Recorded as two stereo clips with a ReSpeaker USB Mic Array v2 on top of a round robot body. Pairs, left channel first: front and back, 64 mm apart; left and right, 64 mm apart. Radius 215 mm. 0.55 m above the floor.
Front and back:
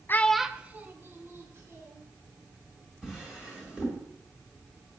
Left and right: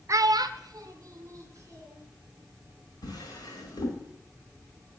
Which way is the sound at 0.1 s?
50° right.